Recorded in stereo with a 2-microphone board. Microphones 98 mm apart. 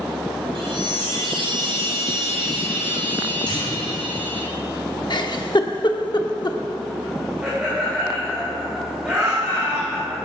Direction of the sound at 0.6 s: 60° right (ahead or behind).